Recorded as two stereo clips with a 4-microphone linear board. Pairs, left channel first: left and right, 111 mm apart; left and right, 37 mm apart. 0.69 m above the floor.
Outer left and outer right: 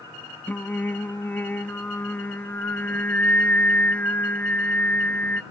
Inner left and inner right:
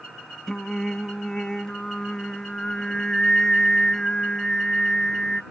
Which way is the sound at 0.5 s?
15° left (ahead or behind).